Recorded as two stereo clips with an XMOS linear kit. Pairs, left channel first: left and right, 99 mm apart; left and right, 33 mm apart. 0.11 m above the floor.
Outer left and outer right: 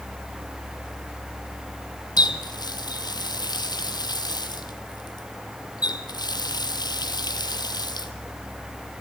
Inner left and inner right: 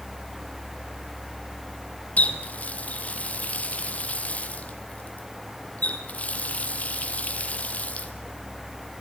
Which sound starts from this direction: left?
A running tap, at 2.2 s.